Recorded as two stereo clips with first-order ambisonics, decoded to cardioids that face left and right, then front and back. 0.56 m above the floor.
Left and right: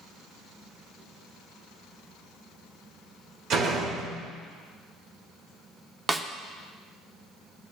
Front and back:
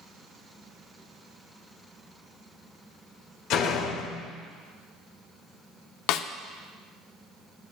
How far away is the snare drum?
About 0.5 m.